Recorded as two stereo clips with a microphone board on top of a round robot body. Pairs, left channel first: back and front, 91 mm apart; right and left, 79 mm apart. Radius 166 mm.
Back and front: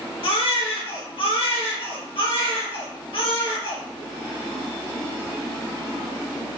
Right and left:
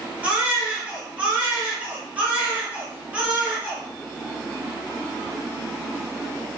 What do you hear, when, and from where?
0.2 s a baby crying: 165° left, 3 m